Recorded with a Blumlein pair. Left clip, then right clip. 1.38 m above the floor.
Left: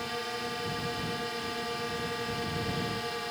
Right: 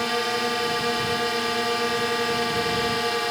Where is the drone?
65° right.